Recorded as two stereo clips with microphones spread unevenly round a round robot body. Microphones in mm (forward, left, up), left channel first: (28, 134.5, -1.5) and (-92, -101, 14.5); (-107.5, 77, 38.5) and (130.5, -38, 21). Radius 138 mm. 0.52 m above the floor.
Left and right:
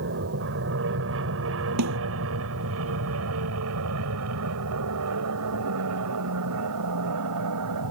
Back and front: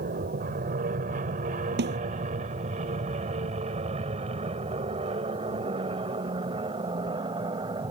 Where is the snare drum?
80° right.